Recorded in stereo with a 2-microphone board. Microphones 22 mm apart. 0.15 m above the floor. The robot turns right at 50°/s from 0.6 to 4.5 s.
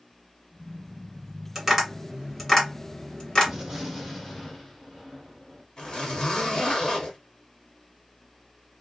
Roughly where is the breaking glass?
No breaking glass in this recording.